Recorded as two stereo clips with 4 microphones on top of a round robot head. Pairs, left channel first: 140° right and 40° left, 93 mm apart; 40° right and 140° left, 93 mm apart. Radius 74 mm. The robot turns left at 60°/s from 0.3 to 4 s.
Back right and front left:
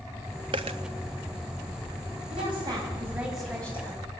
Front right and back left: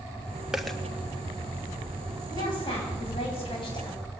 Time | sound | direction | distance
0.5 | a dropped coin | 60° left | 0.9 m
2.3 | a woman speaking | 15° left | 9 m